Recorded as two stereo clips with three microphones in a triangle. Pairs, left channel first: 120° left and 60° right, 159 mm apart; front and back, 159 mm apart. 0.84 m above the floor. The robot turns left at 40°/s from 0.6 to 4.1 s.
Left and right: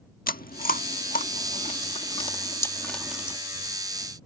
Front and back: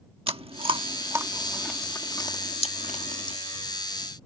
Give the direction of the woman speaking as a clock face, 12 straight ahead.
No woman speaking in this recording.